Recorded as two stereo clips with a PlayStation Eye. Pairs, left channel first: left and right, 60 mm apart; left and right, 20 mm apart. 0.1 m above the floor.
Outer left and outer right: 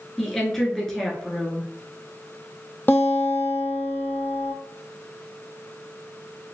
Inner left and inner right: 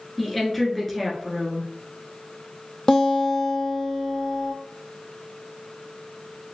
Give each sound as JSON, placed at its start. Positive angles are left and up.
{"t": 0.2, "sound": "a woman speaking", "side_deg": 5, "distance_m": 1.2}
{"t": 2.9, "sound": "a guitar", "side_deg": 30, "distance_m": 0.6}